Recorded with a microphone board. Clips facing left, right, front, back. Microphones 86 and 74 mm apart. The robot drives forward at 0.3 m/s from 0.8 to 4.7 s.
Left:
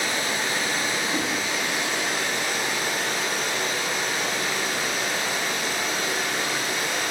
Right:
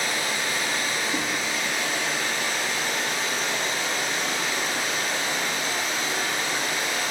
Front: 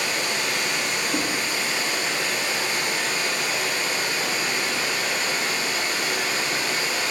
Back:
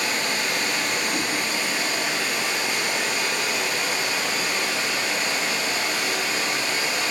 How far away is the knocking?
About 1.1 m.